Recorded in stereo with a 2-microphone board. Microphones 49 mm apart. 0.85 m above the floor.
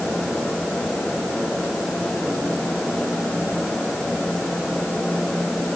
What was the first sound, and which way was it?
Only background noise.